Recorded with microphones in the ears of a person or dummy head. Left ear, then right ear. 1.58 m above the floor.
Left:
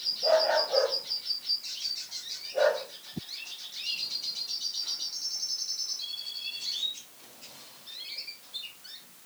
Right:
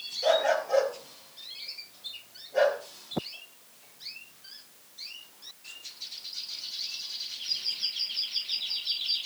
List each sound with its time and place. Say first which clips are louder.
0.2 s a dog barking: even; 60° right (ahead or behind), 8.5 m